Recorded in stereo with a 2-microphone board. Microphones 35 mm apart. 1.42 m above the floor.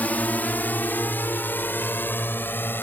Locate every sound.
0.0 s a drone: 45° left (ahead or behind); by 2.8 s 65° left (ahead or behind)